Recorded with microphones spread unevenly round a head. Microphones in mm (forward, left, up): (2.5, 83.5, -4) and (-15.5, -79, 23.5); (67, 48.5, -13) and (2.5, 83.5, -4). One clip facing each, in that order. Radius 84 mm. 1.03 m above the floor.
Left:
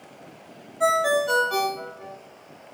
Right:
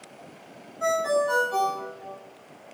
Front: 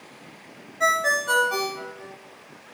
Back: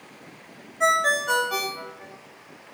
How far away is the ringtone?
About 2.5 m.